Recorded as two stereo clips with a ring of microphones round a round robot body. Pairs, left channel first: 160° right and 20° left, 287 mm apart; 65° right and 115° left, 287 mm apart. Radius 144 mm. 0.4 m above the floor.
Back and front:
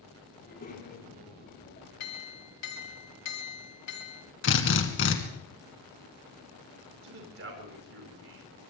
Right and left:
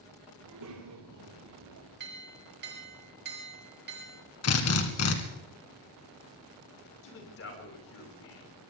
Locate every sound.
0.4 s a child speaking: 145° left, 7 m; by 1.9 s 150° left, 6.5 m
2.0 s a clink: 170° left, 3.5 m
4.4 s a drill: 110° right, 2.5 m
7.0 s a man speaking: 25° right, 5 m